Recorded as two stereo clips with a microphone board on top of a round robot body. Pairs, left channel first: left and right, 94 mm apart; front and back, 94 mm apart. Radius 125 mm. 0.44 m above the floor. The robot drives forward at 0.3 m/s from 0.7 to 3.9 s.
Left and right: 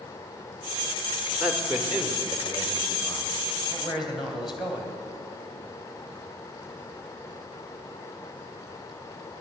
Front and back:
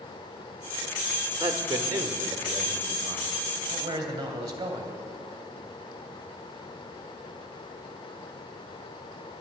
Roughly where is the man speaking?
Behind.